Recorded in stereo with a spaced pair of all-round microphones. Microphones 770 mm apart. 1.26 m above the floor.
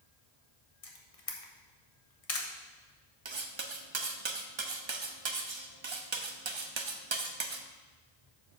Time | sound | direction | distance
0.8 | a camera shutter | 45° left (ahead or behind) | 1.2 m
3.2 | cutlery clinking | 40° right (ahead or behind) | 0.7 m